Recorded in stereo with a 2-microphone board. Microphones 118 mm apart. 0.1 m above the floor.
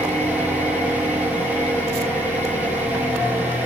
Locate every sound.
0.0 s an engine running: 15° right (ahead or behind), 7.5 m